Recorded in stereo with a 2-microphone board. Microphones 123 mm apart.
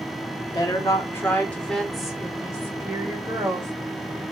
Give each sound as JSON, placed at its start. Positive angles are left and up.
{"t": 0.5, "sound": "a woman speaking", "side_deg": 30, "distance_m": 1.2}